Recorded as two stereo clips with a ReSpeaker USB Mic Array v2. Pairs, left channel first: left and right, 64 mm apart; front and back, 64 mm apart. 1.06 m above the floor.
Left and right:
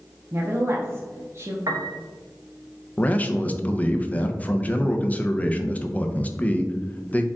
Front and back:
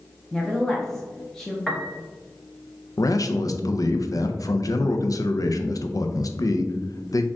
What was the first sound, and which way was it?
A woman speaking, 80° right.